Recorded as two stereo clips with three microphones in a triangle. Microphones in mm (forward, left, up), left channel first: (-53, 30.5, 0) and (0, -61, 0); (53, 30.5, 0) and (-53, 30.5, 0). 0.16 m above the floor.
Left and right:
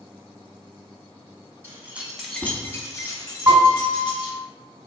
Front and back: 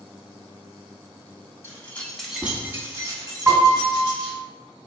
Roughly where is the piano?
Right.